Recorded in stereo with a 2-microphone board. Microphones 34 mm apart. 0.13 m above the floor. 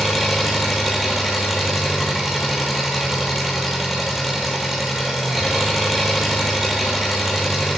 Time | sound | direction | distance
0.0 | an engine running | 10° right (ahead or behind) | 0.8 m